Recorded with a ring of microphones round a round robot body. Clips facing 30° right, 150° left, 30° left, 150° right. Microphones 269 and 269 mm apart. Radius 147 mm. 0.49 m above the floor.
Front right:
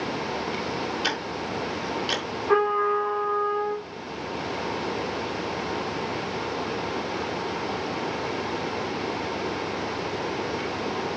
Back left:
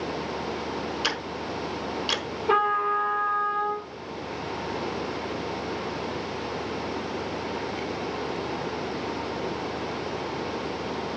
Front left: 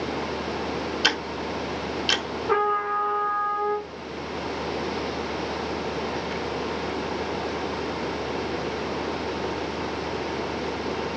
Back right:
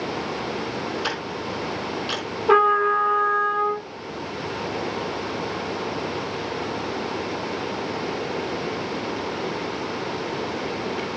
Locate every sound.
1.0 s ticking: 75° left, 1.0 m
2.5 s a trumpet: 165° right, 4.5 m